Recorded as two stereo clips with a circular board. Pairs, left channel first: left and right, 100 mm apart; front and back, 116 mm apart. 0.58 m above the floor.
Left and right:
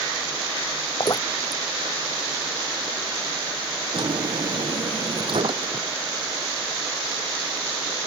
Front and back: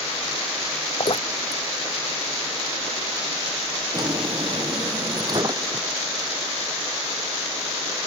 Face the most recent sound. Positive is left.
turn(degrees=-125)